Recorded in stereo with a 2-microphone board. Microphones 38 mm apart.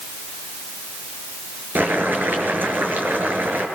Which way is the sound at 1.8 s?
60° right (ahead or behind).